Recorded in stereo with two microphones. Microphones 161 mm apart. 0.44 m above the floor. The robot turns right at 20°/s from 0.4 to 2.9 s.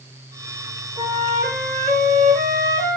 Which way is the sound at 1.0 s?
150° right.